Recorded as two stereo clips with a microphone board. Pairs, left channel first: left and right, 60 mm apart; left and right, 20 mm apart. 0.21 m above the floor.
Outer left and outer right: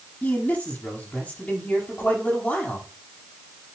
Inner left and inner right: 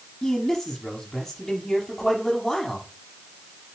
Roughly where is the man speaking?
Left.